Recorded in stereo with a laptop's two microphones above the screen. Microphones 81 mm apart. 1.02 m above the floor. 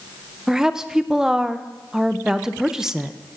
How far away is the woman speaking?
About 0.5 m.